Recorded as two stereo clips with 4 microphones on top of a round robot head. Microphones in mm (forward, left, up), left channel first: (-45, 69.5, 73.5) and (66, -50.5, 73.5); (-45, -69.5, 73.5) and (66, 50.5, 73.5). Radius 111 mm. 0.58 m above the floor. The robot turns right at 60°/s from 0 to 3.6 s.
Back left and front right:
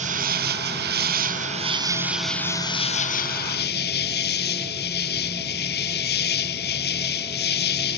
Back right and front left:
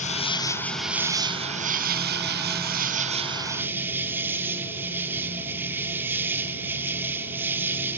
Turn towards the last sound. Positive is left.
turn(degrees=125)